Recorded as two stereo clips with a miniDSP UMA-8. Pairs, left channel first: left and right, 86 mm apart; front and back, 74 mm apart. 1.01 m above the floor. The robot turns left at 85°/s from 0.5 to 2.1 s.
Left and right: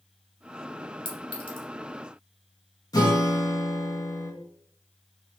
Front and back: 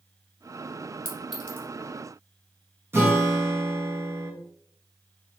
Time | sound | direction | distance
1.1 | a clink | 115° left | 1.4 m
2.9 | a guitar | 130° left | 1.3 m